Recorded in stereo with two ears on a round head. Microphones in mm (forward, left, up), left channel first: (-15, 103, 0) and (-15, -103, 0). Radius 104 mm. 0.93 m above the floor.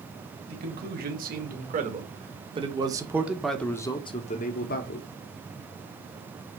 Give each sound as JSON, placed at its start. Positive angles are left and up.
{"t": 0.5, "sound": "a man speaking", "side_deg": -45, "distance_m": 2.5}